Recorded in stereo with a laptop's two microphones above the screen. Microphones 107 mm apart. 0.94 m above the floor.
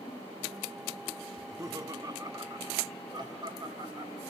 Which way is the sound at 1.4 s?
25° right (ahead or behind).